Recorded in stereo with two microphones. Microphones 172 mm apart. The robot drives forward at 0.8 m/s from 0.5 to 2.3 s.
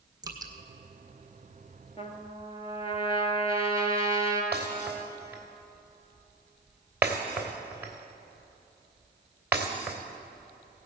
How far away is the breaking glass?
About 3 m.